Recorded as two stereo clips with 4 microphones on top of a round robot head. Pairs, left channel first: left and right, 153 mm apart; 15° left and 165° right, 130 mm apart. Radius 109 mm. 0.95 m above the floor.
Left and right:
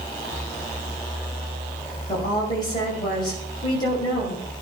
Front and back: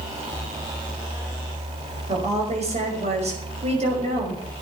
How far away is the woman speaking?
About 5.5 m.